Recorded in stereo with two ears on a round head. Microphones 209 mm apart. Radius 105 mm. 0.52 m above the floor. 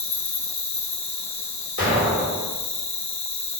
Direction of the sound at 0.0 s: 30° left (ahead or behind).